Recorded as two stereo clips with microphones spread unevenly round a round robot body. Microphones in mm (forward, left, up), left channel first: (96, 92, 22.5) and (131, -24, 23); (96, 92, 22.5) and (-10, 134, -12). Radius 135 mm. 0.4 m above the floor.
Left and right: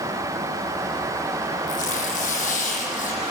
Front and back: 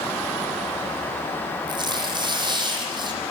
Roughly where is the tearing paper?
Left.